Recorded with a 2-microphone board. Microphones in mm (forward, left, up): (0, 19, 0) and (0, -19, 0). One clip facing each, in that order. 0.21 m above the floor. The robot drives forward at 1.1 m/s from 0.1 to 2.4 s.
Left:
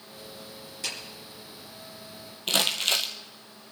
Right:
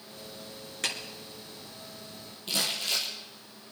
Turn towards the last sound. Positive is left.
turn(degrees=75)  # may be behind; listen again after turning